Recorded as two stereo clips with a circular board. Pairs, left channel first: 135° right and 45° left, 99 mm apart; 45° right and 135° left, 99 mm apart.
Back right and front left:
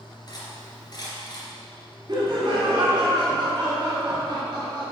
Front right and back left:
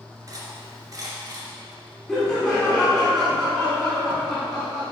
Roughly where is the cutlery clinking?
Behind.